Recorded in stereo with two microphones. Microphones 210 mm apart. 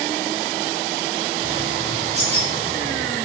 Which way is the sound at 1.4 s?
30° right (ahead or behind).